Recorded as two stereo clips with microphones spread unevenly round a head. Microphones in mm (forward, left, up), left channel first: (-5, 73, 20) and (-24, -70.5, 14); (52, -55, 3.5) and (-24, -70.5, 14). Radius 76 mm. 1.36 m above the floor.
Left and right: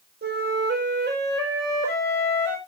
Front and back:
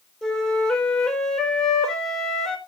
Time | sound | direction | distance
0.2 | a flute | 75° right | 4 m